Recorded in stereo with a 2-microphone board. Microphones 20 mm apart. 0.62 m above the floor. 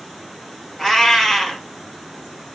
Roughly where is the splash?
No splash in this recording.